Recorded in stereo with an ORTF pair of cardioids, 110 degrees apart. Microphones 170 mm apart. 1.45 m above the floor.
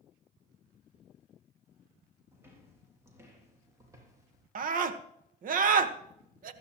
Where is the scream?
55° right, 1.4 m.